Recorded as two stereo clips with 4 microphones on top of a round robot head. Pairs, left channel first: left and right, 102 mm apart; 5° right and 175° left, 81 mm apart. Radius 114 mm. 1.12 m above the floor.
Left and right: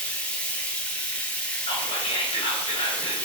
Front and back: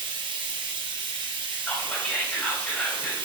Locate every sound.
0.0 s running water: 165° left, 1.3 m
1.6 s whispering: 60° left, 4 m